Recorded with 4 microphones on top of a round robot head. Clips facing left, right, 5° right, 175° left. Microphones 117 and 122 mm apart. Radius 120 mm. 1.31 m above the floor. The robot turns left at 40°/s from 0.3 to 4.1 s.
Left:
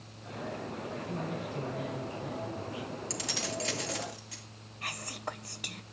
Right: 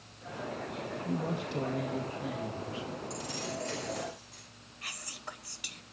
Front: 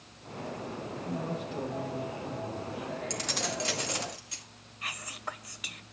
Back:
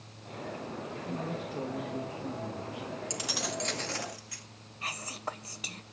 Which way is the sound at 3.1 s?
105° left.